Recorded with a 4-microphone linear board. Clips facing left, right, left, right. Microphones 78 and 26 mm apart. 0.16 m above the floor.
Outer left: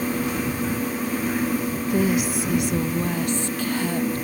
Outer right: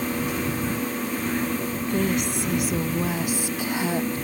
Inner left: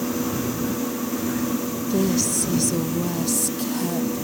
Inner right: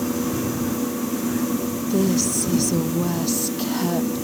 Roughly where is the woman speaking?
Centre.